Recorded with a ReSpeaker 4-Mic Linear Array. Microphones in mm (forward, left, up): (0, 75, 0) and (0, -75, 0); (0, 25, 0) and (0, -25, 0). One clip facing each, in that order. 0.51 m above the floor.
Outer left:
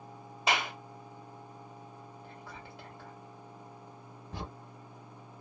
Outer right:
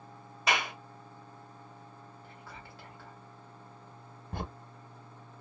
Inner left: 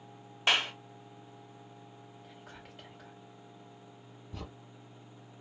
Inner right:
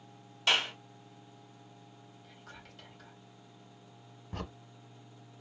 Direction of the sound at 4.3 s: 55° right (ahead or behind).